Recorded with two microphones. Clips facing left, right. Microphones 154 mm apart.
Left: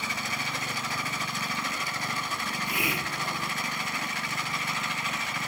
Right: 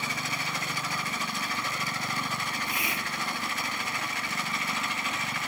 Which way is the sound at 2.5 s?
65° left (ahead or behind).